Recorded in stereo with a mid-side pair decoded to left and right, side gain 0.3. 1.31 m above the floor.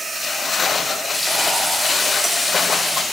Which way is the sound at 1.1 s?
5° right.